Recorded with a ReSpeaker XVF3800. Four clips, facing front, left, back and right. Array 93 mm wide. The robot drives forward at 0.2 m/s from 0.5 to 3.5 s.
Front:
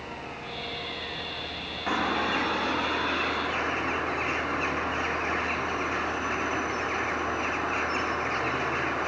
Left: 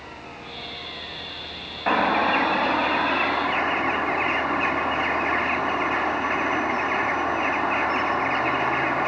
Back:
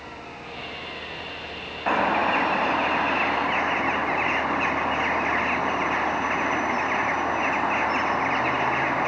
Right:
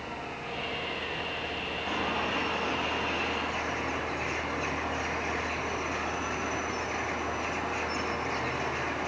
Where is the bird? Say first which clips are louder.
Left 12 dB, back 6 dB; 125° left, 1.2 m; by 9.1 s 135° left, 1.4 m.